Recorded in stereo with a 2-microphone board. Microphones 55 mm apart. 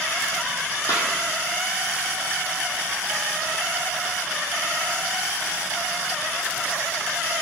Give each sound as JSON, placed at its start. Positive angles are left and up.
{"t": 0.9, "sound": "a snare drum", "side_deg": 70, "distance_m": 4.0}